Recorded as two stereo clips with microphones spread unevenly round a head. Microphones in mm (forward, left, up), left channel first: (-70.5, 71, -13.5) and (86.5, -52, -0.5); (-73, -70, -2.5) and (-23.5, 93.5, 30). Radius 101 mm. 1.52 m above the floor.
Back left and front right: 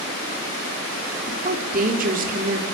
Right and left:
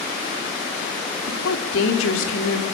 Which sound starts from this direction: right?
A woman speaking, at 1.3 s.